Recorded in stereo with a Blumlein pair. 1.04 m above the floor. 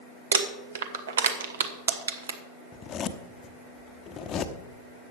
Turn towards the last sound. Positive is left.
turn(degrees=25)